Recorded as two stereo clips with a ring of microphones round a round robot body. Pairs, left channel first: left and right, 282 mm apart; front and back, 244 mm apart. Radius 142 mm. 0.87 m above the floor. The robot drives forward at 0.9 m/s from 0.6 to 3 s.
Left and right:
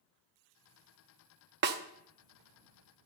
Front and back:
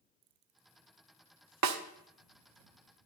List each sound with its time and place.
1.6 s a snare drum: 145° right, 0.6 m; by 1.8 s 150° right, 0.8 m